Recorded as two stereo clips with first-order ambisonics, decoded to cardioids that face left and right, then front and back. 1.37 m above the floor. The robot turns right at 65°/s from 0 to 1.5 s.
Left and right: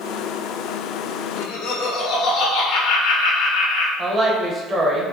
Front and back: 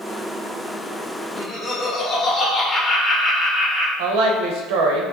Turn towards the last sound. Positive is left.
turn(degrees=-160)